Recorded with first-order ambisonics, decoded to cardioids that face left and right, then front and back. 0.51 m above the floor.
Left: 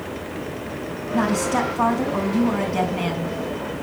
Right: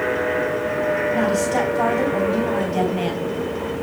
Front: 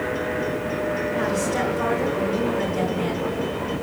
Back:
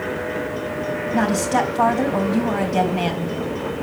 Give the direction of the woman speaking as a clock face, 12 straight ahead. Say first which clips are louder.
Right 2 dB, back 4 dB; 6 o'clock.